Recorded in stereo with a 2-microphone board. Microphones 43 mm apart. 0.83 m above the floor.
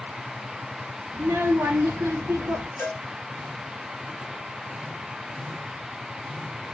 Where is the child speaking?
75° right (ahead or behind), 0.8 m.